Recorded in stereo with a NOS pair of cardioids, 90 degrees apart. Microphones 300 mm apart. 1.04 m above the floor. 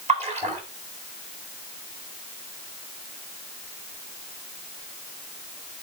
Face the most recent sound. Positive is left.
turn(degrees=-20)